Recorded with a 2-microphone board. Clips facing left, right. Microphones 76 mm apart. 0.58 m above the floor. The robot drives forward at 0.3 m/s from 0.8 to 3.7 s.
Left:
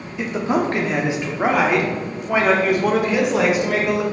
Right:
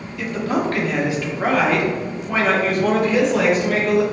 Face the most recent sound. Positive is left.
turn(degrees=10)  # may be behind; listen again after turning